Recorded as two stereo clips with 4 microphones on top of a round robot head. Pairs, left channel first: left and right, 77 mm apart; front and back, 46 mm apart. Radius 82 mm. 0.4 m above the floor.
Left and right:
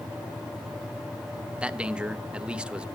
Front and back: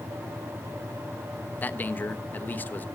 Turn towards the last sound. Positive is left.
turn(degrees=-15)